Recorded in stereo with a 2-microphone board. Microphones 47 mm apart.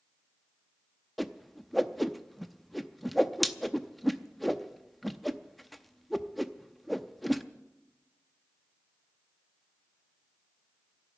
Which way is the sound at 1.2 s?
Centre (ahead or behind).